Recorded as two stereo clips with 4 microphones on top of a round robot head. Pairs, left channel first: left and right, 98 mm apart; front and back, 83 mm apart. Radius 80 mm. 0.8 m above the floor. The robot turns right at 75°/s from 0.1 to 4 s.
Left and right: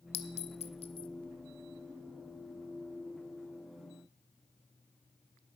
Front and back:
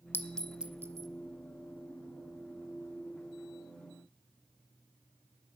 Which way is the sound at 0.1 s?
65° left.